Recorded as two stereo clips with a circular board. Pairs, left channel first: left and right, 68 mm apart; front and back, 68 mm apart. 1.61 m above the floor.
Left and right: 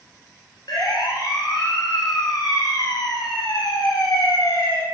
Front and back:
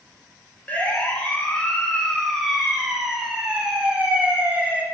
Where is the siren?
70° left, 7 m; by 4.8 s 115° left, 6 m.